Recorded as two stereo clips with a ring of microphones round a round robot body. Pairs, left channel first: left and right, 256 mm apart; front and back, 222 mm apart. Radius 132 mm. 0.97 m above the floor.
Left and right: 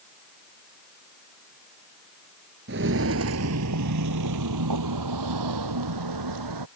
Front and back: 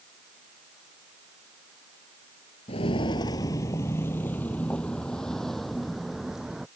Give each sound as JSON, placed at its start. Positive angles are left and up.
{"t": 2.7, "sound": "footsteps", "azimuth_deg": -60}